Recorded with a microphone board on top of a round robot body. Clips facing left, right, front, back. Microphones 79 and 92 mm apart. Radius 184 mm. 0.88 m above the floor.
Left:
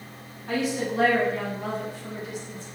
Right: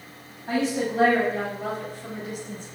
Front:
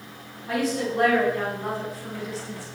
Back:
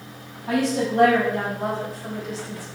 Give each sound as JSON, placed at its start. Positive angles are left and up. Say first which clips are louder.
{"t": 0.5, "sound": "a woman speaking", "louder": "right 2 dB, back 3 dB", "azimuth_deg": -155, "distance_m": 6.0}